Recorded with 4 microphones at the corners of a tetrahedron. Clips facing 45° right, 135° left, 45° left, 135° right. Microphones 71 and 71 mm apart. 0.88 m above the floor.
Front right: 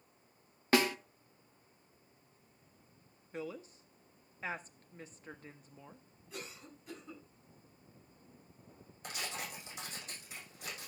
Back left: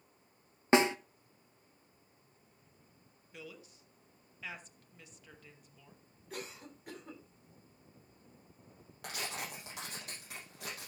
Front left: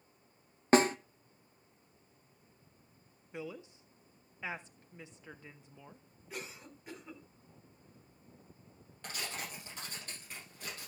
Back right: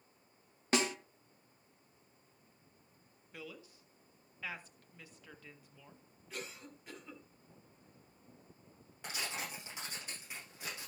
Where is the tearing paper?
145° left, 8 m.